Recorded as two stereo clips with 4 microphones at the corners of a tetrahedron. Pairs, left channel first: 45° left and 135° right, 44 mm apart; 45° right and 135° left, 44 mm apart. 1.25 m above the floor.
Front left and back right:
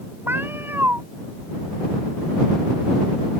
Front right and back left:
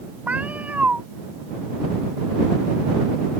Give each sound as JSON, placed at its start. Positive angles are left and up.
{"t": 0.3, "sound": "a cat meowing", "azimuth_deg": -170}